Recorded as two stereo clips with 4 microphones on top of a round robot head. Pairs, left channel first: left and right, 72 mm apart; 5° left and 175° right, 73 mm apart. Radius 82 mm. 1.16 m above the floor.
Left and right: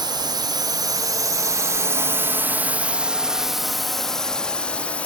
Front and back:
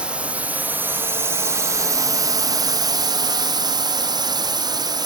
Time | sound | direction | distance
0.0 | a drone | 100° right | ?